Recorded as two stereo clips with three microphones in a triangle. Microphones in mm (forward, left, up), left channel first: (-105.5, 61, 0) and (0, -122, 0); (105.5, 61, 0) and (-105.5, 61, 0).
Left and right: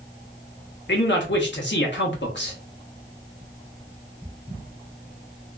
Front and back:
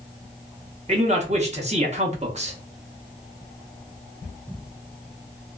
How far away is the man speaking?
About 1.0 m.